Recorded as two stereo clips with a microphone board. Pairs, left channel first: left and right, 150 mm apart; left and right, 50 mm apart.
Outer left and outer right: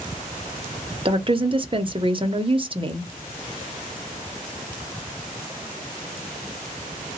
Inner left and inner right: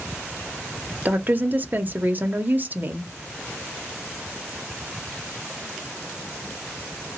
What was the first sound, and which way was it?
A woman speaking, 35° right (ahead or behind).